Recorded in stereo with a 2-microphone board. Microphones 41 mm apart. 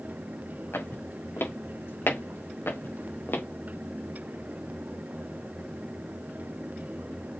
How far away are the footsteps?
About 4 m.